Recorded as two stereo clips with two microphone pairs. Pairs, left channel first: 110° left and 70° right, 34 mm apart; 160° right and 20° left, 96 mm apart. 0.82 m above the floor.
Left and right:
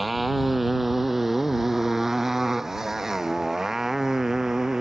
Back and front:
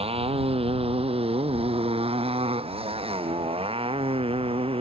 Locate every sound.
0.0 s a motorcycle: 20° left; by 4.8 s 5° left